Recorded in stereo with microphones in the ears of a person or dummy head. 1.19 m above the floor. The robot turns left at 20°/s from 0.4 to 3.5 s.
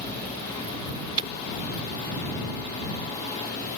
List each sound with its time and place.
1.2 s breaking glass: 25° right (ahead or behind)